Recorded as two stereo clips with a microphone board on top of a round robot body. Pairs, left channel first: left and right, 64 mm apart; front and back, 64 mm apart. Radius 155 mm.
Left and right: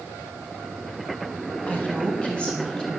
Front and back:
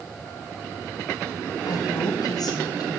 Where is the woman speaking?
20° left, 5 m; by 3.0 s 10° left, 6 m.